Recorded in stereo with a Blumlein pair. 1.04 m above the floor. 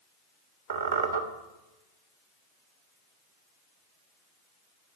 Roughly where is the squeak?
Ahead right.